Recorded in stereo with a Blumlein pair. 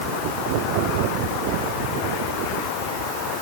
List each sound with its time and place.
Only background noise.